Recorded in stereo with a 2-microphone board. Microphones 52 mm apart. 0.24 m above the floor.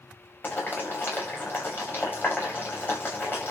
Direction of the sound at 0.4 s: 35° left (ahead or behind).